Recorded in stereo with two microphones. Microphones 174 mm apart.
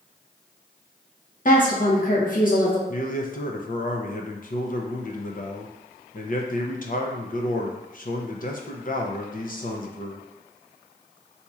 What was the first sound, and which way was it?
A woman speaking, 50° left (ahead or behind).